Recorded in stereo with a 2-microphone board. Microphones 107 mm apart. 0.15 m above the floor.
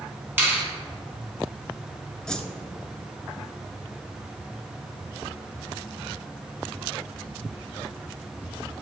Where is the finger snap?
20° right (ahead or behind), 1.6 m.